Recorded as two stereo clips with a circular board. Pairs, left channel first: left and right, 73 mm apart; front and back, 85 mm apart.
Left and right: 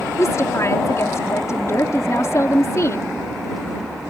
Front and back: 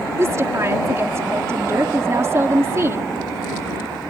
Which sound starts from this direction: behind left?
A woman speaking, at 0.2 s.